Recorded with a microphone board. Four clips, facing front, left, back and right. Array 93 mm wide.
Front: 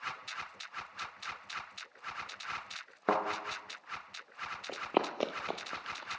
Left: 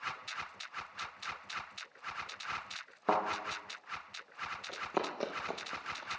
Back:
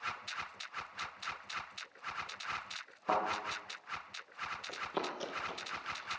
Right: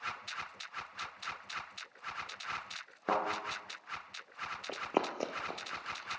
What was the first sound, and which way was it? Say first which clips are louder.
A thud: left 2 dB, front 2 dB; 5° right.